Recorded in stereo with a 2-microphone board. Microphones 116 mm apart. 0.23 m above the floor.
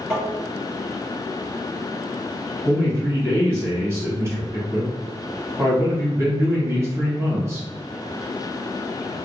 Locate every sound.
0.1 s tapping: 10° left (ahead or behind), 1.6 m
2.6 s a man speaking: 25° right (ahead or behind), 1.2 m